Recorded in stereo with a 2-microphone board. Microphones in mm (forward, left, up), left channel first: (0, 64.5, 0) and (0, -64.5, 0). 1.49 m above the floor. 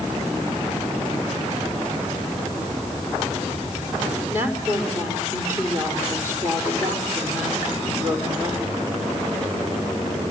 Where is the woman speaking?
15° right (ahead or behind), 4.5 m.